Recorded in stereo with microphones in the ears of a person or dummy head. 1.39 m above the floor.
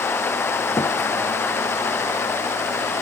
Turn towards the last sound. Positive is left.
turn(degrees=10)  # may be behind; listen again after turning